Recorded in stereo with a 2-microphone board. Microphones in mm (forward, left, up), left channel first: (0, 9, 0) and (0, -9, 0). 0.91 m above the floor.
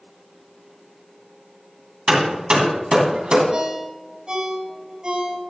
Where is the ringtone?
50° right (ahead or behind), 4 m.